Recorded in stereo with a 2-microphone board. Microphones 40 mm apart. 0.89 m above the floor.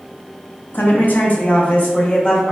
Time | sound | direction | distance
0.7 | a woman speaking | 45° left (ahead or behind) | 0.8 m